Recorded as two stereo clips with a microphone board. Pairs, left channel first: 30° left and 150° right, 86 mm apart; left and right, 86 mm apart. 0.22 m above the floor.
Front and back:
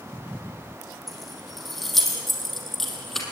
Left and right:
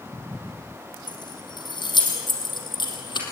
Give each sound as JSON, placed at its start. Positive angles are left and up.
{"t": 1.1, "sound": "keys jangling", "azimuth_deg": 120, "distance_m": 5.5}